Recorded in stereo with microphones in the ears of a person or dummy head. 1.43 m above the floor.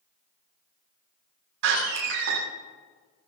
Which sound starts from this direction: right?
A door slam, at 1.6 s.